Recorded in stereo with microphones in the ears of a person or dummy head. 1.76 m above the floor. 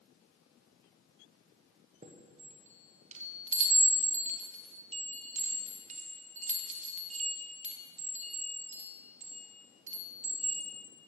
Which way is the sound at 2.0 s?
35° right (ahead or behind).